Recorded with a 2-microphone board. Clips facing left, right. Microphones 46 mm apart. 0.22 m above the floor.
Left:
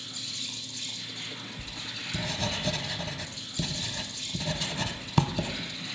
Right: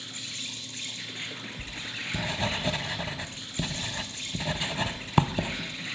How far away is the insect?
About 1.5 m.